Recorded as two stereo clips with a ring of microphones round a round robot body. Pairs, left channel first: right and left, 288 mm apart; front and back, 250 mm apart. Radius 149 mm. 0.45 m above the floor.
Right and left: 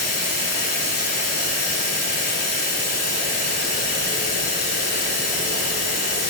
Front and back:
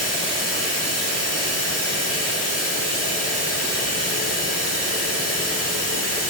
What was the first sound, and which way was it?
Running water, 95° right.